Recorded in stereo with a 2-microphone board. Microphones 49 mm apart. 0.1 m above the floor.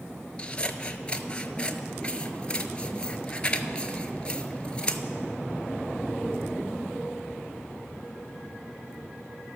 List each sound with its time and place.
0.4 s scissors: 20° left (ahead or behind), 0.6 m